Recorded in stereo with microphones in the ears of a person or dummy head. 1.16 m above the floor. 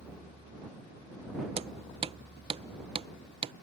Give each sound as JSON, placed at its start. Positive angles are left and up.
{"t": 1.6, "sound": "hammering", "side_deg": -25}